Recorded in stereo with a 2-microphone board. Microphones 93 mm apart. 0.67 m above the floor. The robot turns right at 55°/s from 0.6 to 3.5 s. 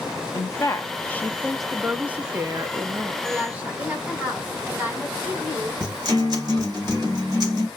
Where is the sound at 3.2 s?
5° right (ahead or behind), 2 m; by 5.7 s 20° right (ahead or behind), 2 m.